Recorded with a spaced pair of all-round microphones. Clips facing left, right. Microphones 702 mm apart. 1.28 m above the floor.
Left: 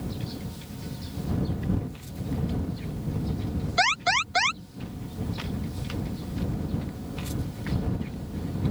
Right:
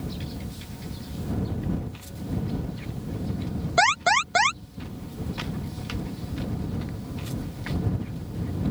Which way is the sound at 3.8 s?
70° right (ahead or behind).